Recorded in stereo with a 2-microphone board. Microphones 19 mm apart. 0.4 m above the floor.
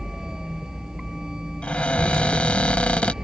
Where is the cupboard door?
60° left (ahead or behind).